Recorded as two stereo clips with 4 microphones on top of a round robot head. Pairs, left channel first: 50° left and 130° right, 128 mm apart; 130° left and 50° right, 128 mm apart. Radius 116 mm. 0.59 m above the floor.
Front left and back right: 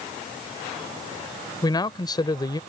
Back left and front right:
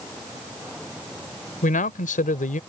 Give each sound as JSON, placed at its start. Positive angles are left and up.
{"t": 1.6, "sound": "a man speaking", "azimuth_deg": 110}